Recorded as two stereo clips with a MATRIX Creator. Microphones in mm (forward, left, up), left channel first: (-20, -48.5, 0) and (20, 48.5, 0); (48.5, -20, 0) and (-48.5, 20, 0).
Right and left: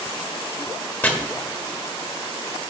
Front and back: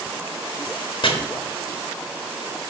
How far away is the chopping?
About 1.2 m.